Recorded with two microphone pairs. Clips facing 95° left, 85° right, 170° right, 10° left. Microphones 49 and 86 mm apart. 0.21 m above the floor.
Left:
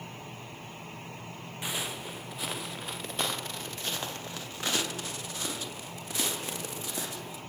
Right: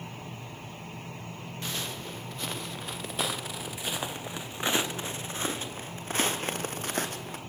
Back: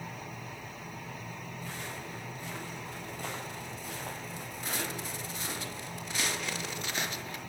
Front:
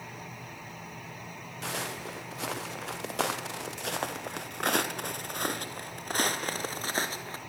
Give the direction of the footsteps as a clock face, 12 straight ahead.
11 o'clock.